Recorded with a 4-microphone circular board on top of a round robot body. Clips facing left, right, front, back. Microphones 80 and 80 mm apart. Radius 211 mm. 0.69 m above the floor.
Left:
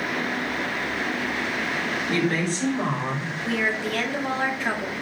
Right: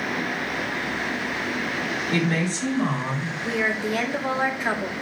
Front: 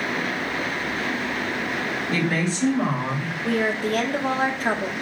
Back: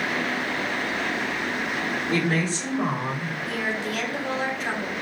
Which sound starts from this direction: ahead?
A woman speaking, at 3.5 s.